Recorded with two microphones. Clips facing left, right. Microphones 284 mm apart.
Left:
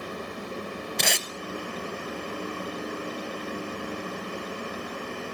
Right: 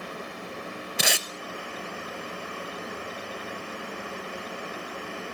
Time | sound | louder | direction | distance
1.0 | tape being pulled | right 2 dB | 5° right (ahead or behind) | 0.9 m